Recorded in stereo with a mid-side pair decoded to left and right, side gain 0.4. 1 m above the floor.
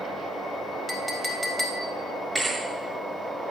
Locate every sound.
0.9 s a clink: 10° left, 4 m
2.4 s a thud: 5° right, 9 m